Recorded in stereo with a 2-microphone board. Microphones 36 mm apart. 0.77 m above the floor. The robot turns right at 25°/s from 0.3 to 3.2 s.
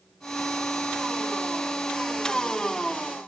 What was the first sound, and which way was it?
Only background noise.